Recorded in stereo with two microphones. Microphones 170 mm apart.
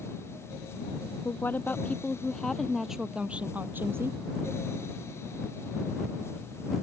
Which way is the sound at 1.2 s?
15° left (ahead or behind).